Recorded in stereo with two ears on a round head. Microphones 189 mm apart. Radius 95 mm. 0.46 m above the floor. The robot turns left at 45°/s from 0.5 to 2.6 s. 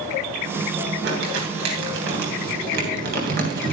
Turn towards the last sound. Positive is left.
turn(degrees=-50)  # may be behind; listen again after turning